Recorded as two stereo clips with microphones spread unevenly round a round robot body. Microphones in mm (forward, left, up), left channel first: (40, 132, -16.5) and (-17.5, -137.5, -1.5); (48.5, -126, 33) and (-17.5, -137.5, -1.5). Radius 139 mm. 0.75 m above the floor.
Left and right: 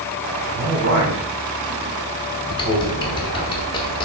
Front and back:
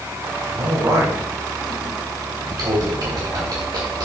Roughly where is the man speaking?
Behind right.